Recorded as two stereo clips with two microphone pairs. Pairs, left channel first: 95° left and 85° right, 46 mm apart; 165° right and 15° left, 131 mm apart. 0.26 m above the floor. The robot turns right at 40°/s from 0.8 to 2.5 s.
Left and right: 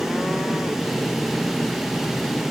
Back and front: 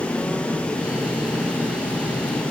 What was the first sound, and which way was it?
Only background noise.